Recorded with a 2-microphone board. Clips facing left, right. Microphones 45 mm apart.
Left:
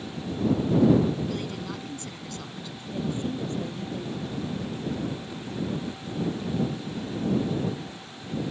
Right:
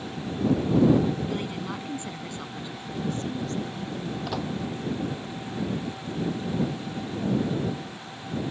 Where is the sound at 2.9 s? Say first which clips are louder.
Left 1 dB; 20° left (ahead or behind).